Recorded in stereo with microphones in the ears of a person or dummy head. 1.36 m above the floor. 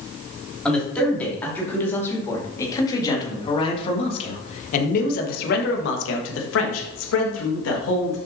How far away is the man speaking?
About 3 m.